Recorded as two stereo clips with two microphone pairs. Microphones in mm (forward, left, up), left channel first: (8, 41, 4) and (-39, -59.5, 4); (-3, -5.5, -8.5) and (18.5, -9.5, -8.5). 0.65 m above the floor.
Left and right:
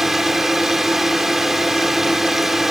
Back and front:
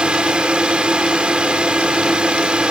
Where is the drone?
25° right.